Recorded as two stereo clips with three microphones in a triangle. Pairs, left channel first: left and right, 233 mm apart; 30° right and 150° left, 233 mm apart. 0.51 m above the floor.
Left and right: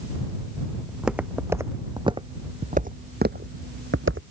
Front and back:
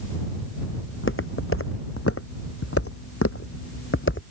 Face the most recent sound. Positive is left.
turn(degrees=-65)